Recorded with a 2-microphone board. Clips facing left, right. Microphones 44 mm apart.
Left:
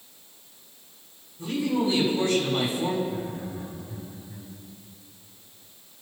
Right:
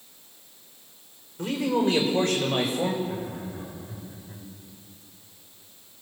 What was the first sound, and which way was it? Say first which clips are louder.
A man speaking: right 1 dB; 70° right (ahead or behind).